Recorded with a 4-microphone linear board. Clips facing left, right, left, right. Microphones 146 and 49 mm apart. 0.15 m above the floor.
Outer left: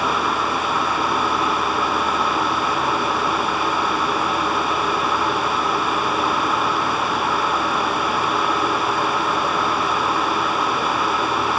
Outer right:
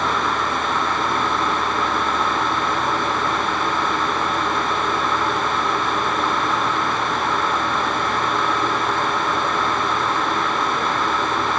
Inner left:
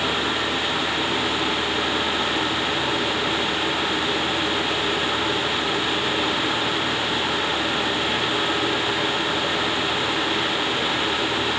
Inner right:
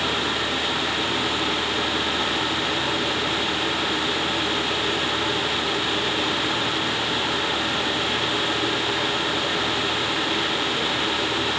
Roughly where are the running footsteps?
No running footsteps in this recording.